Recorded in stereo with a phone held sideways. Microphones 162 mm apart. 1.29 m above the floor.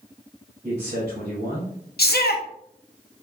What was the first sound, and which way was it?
A man speaking, 60° right (ahead or behind).